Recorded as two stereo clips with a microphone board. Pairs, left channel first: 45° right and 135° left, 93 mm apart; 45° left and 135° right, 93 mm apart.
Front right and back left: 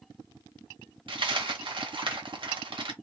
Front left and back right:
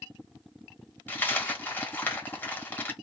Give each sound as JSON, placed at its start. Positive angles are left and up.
{"t": 1.1, "sound": "a dropped coin", "azimuth_deg": 115, "distance_m": 0.9}